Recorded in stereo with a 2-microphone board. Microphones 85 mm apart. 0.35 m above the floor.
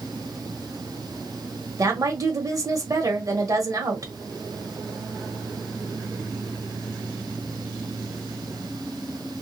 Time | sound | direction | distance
1.8 | a woman speaking | 45° right (ahead or behind) | 1.2 m